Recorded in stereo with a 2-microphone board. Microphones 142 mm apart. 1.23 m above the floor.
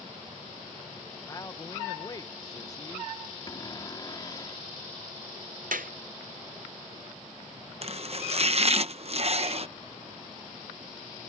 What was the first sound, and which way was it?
A man speaking, 25° left (ahead or behind).